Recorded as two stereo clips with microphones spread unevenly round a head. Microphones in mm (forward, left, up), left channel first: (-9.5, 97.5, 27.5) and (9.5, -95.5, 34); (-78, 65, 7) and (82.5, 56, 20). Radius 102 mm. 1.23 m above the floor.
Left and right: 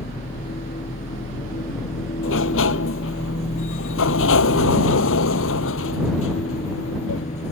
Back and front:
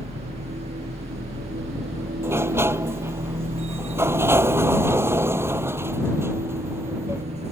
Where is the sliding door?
70° left.